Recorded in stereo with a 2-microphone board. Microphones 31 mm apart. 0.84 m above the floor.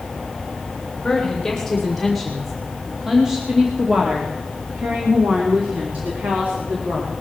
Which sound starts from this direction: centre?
A woman speaking, at 1.0 s.